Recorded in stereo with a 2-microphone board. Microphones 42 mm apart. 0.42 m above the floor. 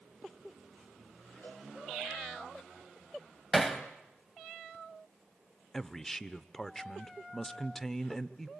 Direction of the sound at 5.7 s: 10° left (ahead or behind).